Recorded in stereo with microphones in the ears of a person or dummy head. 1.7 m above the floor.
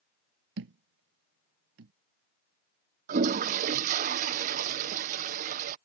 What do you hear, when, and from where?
0.6 s a thud: 60° right (ahead or behind)
3.1 s a toilet flushing: 40° right (ahead or behind)